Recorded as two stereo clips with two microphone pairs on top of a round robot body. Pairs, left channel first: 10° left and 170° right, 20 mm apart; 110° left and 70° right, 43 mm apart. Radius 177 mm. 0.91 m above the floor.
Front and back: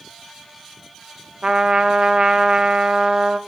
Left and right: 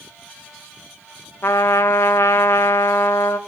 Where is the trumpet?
140° left, 0.8 m.